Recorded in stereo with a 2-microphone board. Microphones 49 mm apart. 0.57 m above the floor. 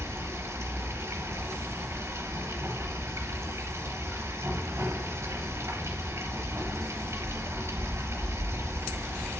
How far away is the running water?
About 3.5 m.